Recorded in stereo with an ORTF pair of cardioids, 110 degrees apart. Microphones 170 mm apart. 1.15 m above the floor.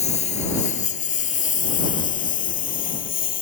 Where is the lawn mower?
40° left; by 3.4 s 55° left.